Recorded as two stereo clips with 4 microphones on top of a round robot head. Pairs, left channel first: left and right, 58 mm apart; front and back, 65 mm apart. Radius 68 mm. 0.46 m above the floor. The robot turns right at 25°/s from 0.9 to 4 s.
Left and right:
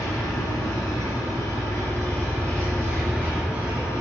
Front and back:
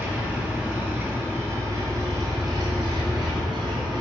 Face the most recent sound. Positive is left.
turn(degrees=-165)